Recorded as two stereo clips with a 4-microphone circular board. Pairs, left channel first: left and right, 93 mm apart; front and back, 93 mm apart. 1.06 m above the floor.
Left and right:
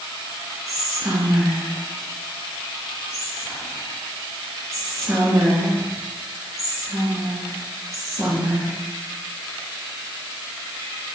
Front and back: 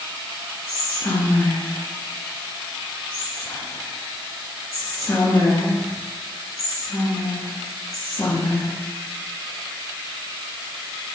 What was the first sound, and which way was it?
Whispering, 50° right.